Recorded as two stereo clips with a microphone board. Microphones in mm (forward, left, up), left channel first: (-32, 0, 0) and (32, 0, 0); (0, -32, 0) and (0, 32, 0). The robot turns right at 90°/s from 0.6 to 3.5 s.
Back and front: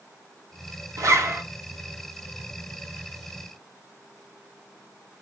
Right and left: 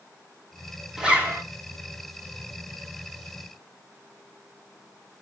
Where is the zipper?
15° left, 0.7 m; by 1.4 s 55° left, 0.7 m.